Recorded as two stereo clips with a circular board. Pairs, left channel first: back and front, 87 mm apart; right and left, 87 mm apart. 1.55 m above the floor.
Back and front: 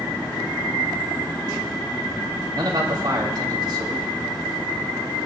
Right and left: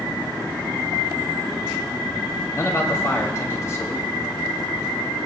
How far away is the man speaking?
About 2.5 m.